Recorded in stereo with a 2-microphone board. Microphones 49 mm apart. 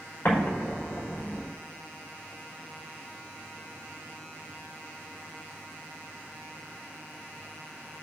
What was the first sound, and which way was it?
An explosion, 50° left (ahead or behind).